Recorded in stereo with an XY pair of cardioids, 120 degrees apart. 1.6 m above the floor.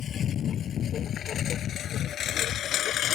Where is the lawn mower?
45° left; by 3.2 s 60° left.